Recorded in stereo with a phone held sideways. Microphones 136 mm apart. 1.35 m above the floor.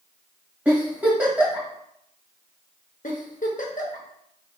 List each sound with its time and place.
0.7 s a giggle: 10° right (ahead or behind), 1.7 m
3.0 s a giggle: 70° left (ahead or behind), 0.9 m